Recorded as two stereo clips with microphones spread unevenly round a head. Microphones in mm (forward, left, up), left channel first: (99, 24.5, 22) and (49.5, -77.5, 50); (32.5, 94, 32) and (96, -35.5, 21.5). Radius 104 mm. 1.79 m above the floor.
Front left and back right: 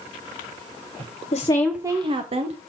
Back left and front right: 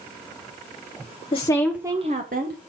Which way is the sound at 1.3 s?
100° left.